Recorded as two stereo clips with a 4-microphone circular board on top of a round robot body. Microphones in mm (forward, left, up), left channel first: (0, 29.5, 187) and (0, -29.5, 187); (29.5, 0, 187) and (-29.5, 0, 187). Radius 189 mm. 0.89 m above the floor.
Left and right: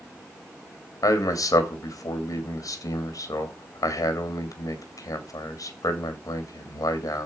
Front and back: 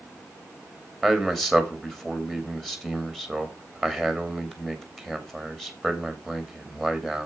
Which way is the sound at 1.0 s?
85° left.